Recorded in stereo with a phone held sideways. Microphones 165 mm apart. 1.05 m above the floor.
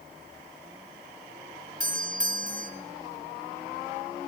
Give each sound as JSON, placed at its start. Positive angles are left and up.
{"t": 1.8, "sound": "a doorbell", "side_deg": -50, "distance_m": 2.0}